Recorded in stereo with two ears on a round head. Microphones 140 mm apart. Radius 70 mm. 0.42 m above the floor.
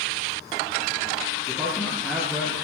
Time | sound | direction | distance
1.5 | a man speaking | 10° left (ahead or behind) | 8.5 m